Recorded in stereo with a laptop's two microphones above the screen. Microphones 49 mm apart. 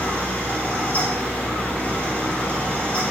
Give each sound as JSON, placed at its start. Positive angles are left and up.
{"t": 0.0, "sound": "a fan", "side_deg": 30, "distance_m": 2.0}